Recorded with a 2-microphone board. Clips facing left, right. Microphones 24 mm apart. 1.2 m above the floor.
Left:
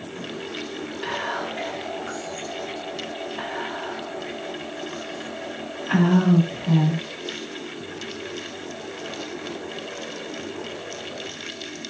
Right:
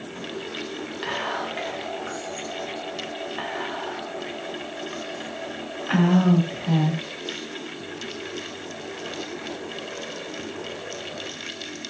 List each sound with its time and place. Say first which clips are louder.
1.0 s whispering: even; 25° right (ahead or behind), 1.0 m